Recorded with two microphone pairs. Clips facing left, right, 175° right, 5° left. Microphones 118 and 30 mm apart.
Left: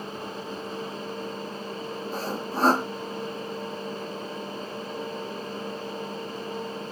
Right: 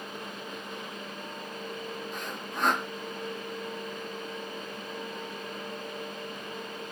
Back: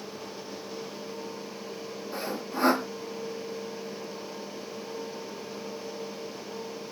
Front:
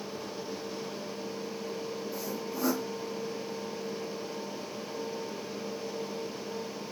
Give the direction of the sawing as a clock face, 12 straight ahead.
7 o'clock.